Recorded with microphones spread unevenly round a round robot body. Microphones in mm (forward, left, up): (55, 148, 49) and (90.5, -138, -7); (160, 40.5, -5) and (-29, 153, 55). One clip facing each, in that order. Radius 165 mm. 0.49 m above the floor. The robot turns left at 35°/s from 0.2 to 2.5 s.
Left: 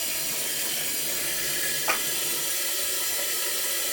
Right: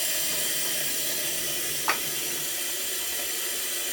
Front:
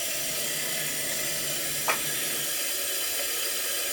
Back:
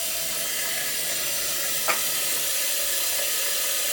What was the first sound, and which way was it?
Running water, 120° right.